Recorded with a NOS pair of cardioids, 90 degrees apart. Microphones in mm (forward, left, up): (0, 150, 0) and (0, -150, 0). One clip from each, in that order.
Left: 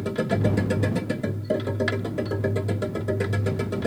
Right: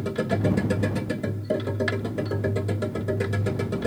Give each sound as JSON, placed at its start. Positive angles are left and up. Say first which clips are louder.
{"t": 0.0, "sound": "a machine running", "louder": "left 1 dB", "azimuth_deg": 5}